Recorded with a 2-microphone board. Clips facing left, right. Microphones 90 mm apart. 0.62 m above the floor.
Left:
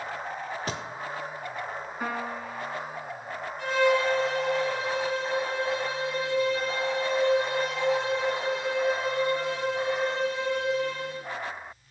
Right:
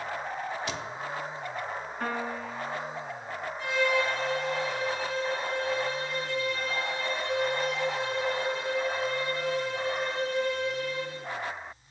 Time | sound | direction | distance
0.7 | a thud | 40° left (ahead or behind) | 0.6 m
2.0 | a piano | 10° left (ahead or behind) | 0.6 m
3.6 | a violin | 65° left (ahead or behind) | 2.5 m